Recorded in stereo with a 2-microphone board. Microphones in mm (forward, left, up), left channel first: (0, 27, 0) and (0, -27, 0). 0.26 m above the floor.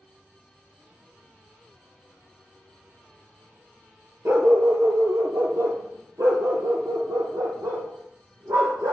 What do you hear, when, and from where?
4.2 s a dog barking: 45° right (ahead or behind), 1.5 m; by 8.9 s 85° right, 3.5 m